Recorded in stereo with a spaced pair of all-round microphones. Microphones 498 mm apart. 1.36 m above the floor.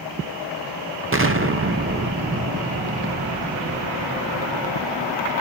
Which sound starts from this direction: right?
An explosion, at 1.1 s.